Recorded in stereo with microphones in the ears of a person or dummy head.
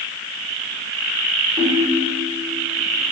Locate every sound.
1.6 s a ringtone: 10° right (ahead or behind), 2.5 m